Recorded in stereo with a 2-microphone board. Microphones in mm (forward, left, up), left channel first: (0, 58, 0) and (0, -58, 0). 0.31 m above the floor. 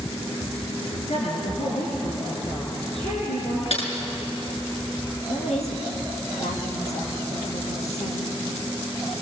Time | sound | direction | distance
1.1 | a woman speaking | 65° left (ahead or behind) | 5.5 m
3.7 | typing on a keyboard | 65° left (ahead or behind) | 5 m
5.3 | a woman speaking | 80° left | 6.5 m